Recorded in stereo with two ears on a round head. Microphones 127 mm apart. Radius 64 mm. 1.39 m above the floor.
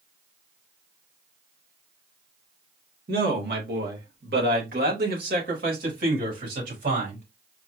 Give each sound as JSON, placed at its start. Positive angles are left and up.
{"t": 3.1, "sound": "a man speaking", "side_deg": -80, "distance_m": 2.0}